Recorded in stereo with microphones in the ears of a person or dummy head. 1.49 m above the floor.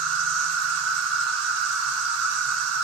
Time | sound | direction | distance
0.0 | an insect | 65° right (ahead or behind) | 0.7 m